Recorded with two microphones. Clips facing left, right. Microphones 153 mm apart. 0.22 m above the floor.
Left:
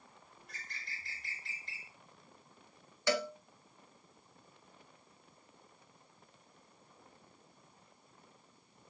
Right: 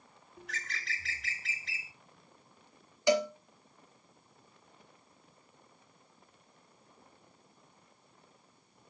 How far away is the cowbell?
About 0.6 m.